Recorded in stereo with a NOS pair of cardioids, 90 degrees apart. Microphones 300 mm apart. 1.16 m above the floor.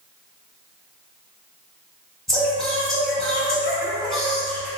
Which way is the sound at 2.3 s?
Straight ahead.